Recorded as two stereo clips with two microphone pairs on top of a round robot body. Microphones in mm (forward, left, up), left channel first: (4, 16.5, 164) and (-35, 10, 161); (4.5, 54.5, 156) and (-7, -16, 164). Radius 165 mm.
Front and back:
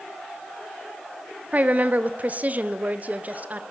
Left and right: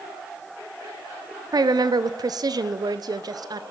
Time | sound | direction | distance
1.5 | a woman speaking | 125° right | 0.9 m